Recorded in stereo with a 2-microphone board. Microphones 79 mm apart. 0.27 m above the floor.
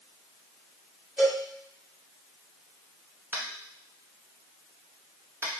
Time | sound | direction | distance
1.2 | a cowbell | 20° right (ahead or behind) | 1.6 m
3.3 | tapping | 25° right (ahead or behind) | 1.0 m